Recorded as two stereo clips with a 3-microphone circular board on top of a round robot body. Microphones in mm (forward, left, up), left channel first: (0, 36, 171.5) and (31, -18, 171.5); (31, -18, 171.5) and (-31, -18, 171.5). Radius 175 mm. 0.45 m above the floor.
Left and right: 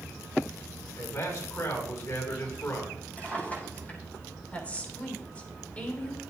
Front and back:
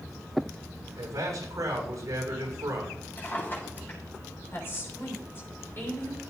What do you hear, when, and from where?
0.9 s a man speaking: 155° left, 5.5 m
3.2 s a drawer: 55° left, 6 m
4.5 s a woman speaking: 50° left, 6 m